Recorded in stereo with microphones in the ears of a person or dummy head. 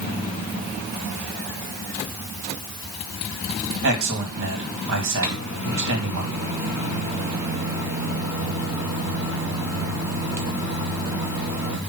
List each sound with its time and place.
3.8 s a man speaking: 75° right (ahead or behind), 2.5 m
5.2 s a microwave: 10° right (ahead or behind), 1.7 m